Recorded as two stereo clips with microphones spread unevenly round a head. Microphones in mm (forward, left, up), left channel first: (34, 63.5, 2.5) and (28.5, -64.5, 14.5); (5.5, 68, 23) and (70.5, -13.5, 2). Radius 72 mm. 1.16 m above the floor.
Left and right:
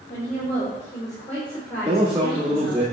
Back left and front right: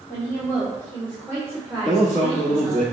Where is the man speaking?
170° right, 1.8 m.